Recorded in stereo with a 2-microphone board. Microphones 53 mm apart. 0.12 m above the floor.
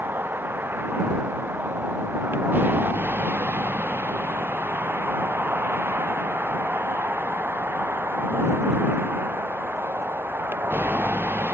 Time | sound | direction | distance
0.0 | a vehicle | 40° right (ahead or behind) | ?